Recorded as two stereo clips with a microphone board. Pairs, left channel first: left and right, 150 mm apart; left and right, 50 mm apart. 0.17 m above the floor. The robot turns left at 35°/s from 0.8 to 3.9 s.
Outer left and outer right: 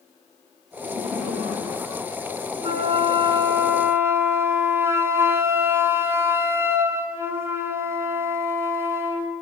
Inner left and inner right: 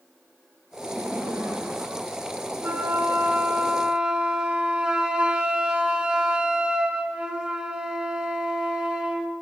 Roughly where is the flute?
Right.